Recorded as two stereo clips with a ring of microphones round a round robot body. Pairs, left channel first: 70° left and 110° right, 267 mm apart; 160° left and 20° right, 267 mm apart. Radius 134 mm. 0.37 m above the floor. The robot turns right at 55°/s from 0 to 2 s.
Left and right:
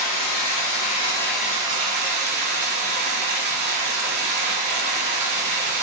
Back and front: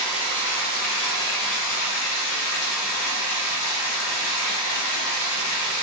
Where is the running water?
80° left, 1.0 m; by 5.8 s 170° right, 1.0 m.